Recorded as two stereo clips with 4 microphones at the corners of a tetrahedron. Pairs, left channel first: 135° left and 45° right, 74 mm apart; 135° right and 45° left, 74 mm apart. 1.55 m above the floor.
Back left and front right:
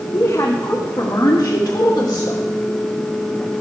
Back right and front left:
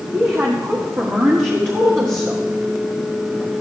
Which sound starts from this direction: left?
A woman speaking, at 0.1 s.